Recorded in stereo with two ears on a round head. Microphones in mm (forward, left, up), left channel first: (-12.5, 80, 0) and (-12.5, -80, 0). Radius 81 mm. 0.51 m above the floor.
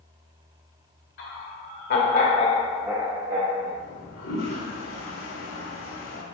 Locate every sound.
1.2 s laughter: 70° left (ahead or behind), 2.5 m; by 3.7 s 55° right (ahead or behind), 1.8 m
3.8 s a toilet flushing: 80° left, 2.5 m